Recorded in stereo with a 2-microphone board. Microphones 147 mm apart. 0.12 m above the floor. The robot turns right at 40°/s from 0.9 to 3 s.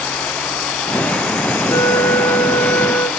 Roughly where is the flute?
Left.